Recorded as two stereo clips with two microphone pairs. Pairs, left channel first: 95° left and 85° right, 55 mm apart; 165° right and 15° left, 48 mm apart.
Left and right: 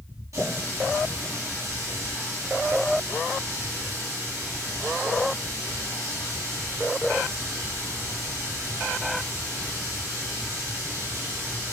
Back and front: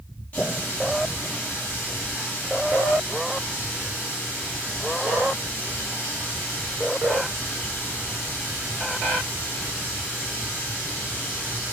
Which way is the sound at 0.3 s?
100° right.